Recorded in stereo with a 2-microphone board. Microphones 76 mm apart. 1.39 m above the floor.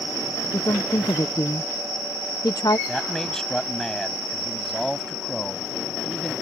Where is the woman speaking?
60° left (ahead or behind).